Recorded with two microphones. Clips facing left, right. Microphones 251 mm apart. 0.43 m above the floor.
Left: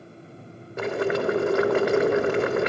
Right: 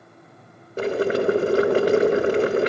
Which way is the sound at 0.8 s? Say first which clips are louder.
Right 3 dB; 30° right (ahead or behind).